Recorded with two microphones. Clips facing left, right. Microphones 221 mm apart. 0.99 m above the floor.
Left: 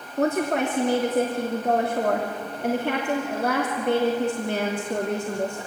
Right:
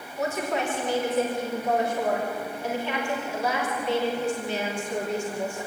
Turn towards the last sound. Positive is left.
turn(degrees=55)  # may be behind; listen again after turning